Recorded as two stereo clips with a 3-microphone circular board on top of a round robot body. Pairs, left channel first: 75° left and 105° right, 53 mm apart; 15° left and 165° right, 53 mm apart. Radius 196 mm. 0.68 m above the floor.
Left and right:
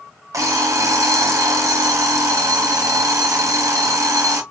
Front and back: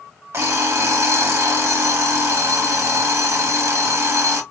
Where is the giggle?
No giggle in this recording.